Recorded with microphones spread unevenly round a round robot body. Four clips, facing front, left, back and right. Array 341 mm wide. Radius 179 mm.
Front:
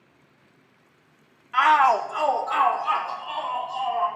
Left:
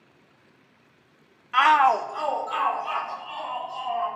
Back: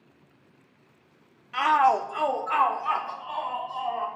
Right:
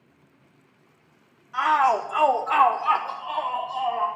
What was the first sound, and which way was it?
A shout, 90° left.